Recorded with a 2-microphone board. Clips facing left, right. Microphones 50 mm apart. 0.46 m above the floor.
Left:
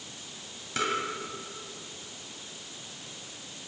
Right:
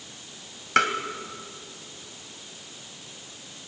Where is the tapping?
70° right (ahead or behind), 2 m.